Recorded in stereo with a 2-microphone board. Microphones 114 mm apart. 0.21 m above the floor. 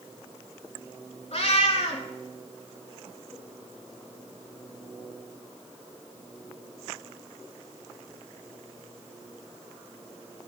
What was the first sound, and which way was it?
A cat meowing, 65° left (ahead or behind).